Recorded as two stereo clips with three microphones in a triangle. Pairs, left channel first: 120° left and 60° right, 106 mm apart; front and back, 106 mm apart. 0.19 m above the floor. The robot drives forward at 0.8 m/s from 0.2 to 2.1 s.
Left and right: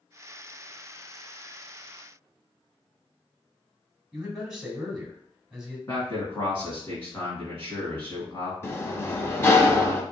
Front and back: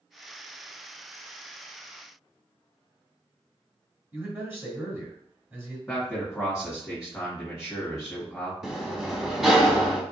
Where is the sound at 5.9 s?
95° left, 1.6 m.